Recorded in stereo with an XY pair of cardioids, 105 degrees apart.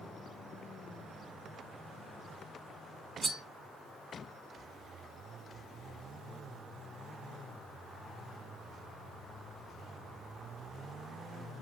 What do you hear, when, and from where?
3.2 s cutlery clinking: 25° right, 1.2 m